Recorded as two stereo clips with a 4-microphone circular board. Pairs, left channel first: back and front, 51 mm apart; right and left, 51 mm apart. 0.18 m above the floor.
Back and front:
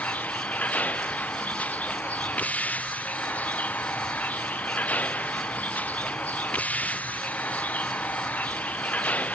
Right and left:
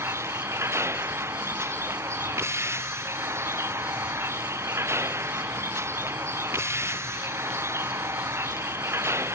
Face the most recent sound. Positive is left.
turn(degrees=120)